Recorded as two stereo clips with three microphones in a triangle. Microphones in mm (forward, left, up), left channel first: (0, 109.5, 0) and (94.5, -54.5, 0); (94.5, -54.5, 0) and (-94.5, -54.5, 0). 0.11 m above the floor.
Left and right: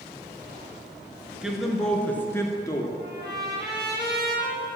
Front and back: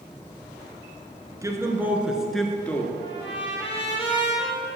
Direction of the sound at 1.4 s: 140° right.